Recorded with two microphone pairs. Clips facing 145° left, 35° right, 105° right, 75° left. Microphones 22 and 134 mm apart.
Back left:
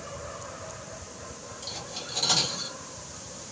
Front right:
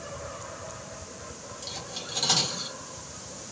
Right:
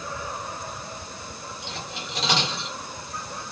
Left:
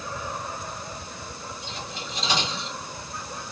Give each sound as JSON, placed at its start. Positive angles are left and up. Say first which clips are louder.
{"t": 1.6, "sound": "cutlery clinking", "louder": "even, right 2 dB", "azimuth_deg": -120, "distance_m": 1.7}